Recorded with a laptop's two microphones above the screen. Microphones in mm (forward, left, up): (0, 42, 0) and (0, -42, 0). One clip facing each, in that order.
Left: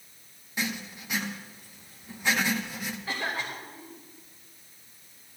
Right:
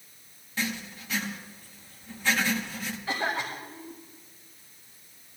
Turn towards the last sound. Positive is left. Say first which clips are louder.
# right 4 dB
turn(degrees=25)  # may be behind; listen again after turning